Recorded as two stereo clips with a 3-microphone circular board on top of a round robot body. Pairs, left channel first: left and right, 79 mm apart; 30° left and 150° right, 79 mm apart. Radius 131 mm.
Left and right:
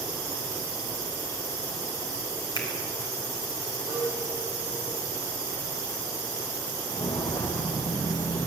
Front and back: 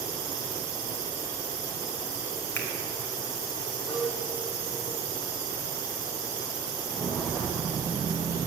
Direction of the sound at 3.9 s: 60° right.